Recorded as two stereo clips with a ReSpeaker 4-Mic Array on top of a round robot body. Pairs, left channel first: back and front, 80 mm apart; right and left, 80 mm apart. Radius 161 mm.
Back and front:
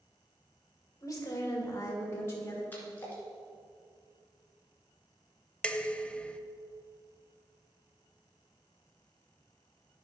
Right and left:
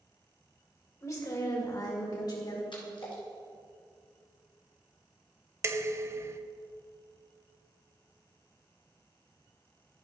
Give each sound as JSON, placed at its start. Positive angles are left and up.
{"t": 1.0, "sound": "a woman speaking", "azimuth_deg": -135, "distance_m": 2.0}
{"t": 2.7, "sound": "a splash", "azimuth_deg": -115, "distance_m": 2.0}
{"t": 5.6, "sound": "dishes clattering", "azimuth_deg": 115, "distance_m": 0.7}